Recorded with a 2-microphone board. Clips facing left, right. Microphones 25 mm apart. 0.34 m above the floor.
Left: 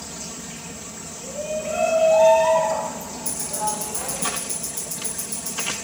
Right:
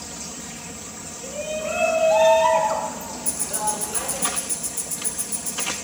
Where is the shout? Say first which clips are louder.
Even; 70° right (ahead or behind), 3 m; by 4.2 s 65° right (ahead or behind), 3 m.